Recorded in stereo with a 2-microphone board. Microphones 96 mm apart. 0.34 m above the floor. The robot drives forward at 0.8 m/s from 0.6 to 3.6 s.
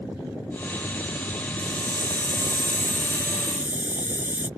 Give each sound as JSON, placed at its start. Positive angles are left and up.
{"t": 1.6, "sound": "a hiss", "side_deg": -65}